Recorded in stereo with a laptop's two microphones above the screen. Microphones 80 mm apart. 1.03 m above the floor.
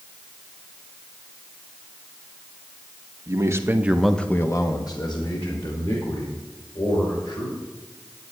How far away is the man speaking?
About 1.6 m.